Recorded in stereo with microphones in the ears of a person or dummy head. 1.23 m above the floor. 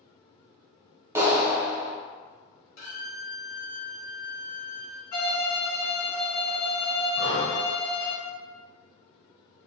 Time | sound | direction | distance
1.1 | a clap | 15° right (ahead or behind) | 0.7 m
2.8 | a violin | 70° left (ahead or behind) | 1.4 m
5.1 | a violin | 45° left (ahead or behind) | 0.7 m
7.2 | breathing | 65° right (ahead or behind) | 1.1 m